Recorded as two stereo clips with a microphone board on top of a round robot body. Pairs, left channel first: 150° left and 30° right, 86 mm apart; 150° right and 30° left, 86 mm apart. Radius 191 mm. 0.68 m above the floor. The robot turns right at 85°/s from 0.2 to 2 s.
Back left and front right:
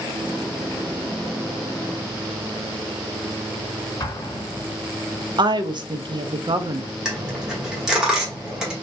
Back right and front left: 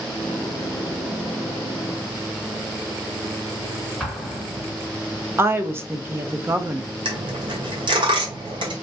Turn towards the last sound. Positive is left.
turn(degrees=50)